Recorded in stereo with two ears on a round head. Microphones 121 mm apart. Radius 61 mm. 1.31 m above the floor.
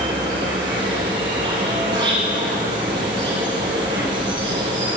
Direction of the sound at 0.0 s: 35° right (ahead or behind).